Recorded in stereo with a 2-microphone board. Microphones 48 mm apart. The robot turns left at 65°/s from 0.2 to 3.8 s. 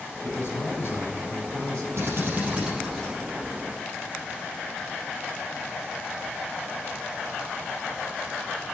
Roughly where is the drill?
Right.